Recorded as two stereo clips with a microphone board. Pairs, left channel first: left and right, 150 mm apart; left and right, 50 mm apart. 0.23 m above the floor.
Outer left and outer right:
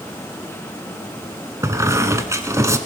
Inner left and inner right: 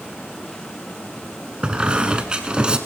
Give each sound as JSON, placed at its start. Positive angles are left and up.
{"t": 1.6, "sound": "a squeak", "side_deg": -20, "distance_m": 0.9}